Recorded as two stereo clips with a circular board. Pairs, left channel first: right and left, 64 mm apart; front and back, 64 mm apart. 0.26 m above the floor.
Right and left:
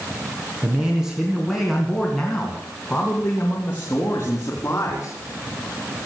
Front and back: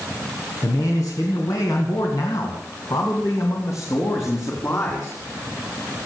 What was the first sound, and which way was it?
A man speaking, 20° left.